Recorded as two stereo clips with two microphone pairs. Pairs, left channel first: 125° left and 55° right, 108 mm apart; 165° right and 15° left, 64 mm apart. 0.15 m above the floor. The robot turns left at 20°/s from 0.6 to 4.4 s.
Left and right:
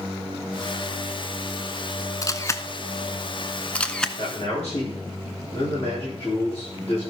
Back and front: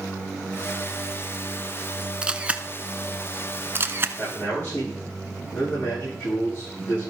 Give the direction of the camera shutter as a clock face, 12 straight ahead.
9 o'clock.